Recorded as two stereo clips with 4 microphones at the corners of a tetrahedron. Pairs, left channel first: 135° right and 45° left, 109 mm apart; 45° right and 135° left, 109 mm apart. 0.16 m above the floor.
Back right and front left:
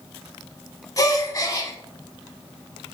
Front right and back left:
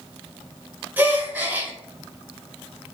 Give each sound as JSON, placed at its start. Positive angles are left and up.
{"t": 1.0, "sound": "a gasp", "azimuth_deg": -165, "distance_m": 0.5}